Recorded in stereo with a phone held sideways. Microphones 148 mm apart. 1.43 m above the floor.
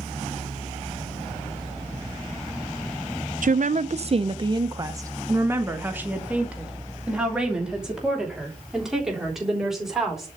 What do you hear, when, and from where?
3.4 s a woman speaking: 70° right (ahead or behind), 0.6 m; by 10.3 s centre (ahead or behind), 4 m